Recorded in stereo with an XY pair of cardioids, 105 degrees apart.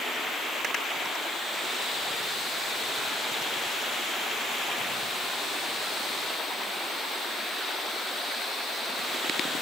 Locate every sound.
Only background noise.